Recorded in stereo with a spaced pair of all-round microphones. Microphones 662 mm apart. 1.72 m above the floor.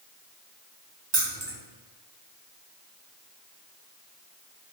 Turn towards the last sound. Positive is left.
turn(degrees=-40)  # may be behind; listen again after turning